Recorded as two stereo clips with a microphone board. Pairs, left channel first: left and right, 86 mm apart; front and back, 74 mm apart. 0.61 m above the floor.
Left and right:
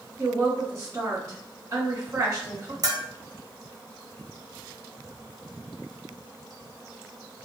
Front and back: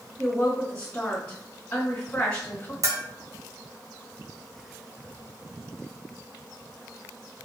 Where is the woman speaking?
65° right, 1.6 m.